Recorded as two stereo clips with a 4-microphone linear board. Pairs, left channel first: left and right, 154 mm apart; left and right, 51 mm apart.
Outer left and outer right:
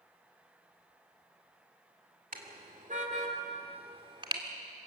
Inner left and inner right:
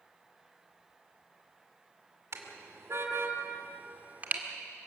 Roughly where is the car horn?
Right.